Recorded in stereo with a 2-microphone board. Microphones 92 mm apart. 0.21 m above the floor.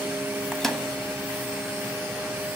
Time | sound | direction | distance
0.5 | a microwave | 5° left (ahead or behind) | 1.4 m